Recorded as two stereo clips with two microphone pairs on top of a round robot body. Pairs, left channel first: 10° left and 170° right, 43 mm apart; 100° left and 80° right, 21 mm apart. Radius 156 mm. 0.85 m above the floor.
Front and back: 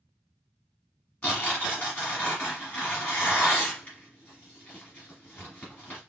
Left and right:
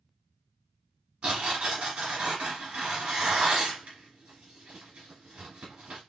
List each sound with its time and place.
1.2 s tearing paper: 50° right, 1.3 m